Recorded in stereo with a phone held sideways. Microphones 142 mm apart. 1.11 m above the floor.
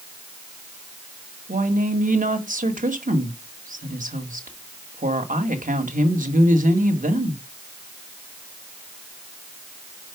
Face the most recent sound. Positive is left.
turn(degrees=-75)  # may be behind; listen again after turning